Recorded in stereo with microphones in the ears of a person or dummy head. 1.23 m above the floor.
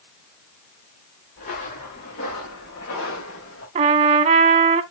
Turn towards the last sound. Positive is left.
turn(degrees=-35)  # may be behind; listen again after turning